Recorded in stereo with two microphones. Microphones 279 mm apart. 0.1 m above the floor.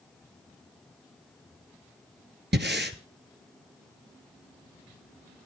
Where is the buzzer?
No buzzer in this recording.